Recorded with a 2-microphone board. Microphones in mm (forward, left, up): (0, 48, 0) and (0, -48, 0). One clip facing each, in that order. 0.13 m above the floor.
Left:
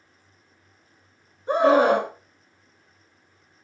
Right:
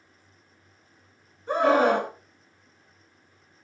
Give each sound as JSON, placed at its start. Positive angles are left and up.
{"t": 1.5, "sound": "a scream", "side_deg": 20, "distance_m": 1.0}